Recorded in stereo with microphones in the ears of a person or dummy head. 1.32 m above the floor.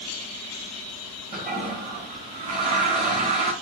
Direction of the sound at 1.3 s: 45° right (ahead or behind).